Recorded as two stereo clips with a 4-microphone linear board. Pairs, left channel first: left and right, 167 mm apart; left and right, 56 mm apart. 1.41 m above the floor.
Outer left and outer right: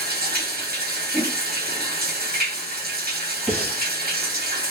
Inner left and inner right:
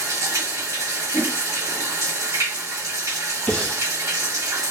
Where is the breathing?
10° left (ahead or behind), 1.5 m.